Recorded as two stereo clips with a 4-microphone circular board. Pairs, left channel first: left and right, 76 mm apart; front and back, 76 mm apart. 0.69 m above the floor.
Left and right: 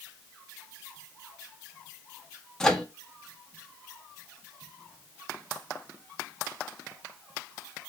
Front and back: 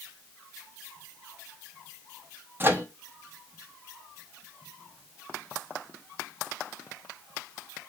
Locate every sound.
2.6 s a microwave: 165° left, 0.7 m